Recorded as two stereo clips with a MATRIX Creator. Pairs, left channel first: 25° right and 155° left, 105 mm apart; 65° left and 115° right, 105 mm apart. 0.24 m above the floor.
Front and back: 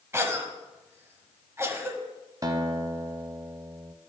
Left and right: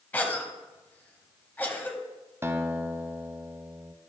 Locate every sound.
0.1 s a cough: 125° left, 1.2 m
2.4 s a guitar: 165° right, 0.6 m